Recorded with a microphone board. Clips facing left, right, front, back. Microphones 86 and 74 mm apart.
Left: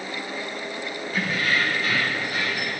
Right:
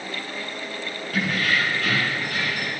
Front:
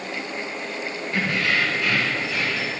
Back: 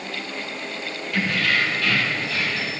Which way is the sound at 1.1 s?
60° right.